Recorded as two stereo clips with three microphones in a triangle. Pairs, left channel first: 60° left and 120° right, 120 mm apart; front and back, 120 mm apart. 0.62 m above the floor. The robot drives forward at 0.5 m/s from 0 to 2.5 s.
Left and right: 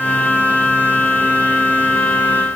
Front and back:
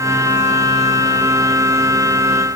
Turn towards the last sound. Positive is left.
No sound to turn to.